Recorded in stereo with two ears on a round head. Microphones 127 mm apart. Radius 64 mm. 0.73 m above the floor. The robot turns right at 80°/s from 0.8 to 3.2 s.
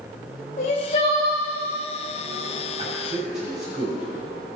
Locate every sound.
0.6 s crying: 125° left, 2.5 m; by 1.4 s 170° left, 2.5 m
2.8 s a man speaking: 35° right (ahead or behind), 4.5 m; by 4.6 s 5° right (ahead or behind), 4.5 m